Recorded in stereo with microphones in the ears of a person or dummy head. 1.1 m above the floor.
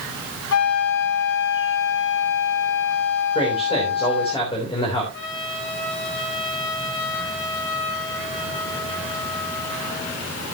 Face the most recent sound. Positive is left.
turn(degrees=65)  # may be behind; listen again after turning